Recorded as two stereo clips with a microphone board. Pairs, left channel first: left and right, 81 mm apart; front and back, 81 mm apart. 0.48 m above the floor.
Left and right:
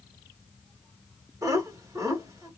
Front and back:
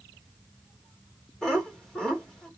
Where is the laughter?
80° right, 1.8 m.